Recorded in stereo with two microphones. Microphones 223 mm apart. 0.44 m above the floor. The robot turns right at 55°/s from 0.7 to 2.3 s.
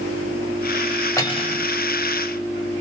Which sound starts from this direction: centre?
Cutlery clinking, at 1.2 s.